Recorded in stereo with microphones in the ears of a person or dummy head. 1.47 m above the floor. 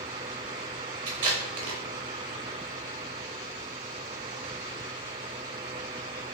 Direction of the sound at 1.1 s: 30° right (ahead or behind).